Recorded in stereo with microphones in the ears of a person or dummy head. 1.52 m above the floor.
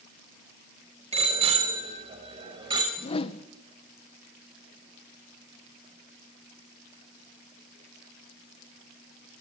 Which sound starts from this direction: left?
A whoosh, at 3.0 s.